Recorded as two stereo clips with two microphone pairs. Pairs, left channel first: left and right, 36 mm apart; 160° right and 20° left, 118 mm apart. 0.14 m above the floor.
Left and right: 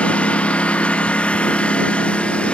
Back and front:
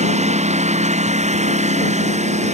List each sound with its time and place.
0.0 s a lawn mower: 35° left